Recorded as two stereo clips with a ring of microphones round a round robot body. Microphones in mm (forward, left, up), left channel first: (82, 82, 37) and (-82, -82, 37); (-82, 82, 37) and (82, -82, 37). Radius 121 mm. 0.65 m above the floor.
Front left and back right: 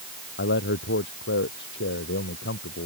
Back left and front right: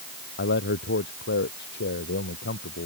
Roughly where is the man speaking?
Left.